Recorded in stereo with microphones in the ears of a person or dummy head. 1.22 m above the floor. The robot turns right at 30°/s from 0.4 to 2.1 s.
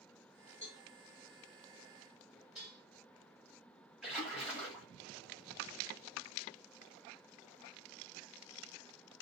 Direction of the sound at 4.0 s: 5° left (ahead or behind).